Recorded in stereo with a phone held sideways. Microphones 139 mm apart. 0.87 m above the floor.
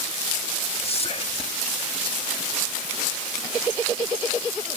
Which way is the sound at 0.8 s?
45° left (ahead or behind).